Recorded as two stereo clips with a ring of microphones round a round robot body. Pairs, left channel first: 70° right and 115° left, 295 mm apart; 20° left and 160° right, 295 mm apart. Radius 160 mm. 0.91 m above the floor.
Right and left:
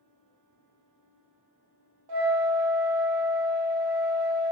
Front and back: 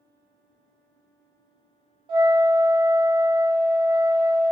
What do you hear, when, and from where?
2.1 s a flute: 125° left, 0.9 m